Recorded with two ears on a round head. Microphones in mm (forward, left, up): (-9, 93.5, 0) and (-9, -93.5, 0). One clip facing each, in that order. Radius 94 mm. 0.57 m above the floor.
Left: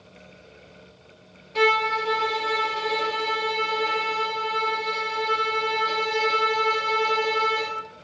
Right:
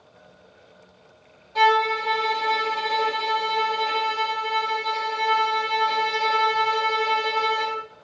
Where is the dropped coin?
I don't hear a dropped coin.